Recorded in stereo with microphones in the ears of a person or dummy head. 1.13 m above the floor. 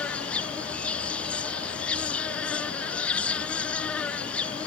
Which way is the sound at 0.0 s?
5° left (ahead or behind).